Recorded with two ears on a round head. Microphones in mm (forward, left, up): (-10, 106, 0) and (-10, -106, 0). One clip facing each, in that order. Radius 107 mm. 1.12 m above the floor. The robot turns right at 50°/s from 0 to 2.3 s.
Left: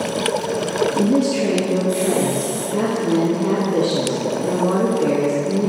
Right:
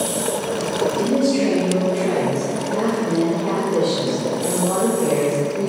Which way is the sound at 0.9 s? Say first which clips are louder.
Even; 60° left.